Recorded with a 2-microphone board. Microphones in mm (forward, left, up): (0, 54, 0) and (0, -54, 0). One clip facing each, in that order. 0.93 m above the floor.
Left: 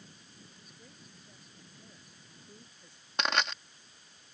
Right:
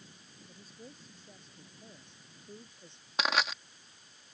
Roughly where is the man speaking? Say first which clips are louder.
Right 5 dB; right.